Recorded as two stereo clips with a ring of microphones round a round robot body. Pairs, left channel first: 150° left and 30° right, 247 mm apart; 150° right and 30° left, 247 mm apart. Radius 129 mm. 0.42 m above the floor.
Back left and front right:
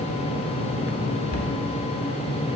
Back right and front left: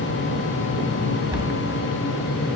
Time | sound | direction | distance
1.3 | a cupboard door | 100° left | 1.3 m